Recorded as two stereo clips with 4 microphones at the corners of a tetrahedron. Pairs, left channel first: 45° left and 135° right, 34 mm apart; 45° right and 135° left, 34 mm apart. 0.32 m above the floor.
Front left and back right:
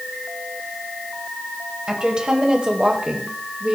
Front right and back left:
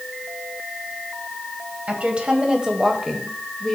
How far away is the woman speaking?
About 1.6 m.